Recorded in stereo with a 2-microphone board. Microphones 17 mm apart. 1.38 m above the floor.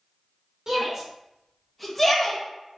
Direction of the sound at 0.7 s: 30° right (ahead or behind).